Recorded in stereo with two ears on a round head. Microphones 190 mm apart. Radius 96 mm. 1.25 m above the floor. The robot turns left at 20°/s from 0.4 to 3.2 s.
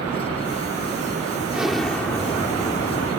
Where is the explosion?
175° right; by 3.1 s 155° left.